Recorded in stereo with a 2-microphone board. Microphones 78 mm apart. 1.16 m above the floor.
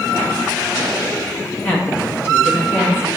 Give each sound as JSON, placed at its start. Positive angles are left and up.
{"t": 1.6, "sound": "a woman speaking", "side_deg": 30, "distance_m": 1.8}